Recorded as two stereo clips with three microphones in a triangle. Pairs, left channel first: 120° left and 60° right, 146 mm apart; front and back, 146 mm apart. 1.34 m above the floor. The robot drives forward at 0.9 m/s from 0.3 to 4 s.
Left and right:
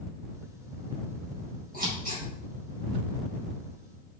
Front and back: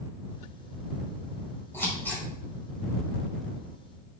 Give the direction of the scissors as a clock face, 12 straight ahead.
2 o'clock.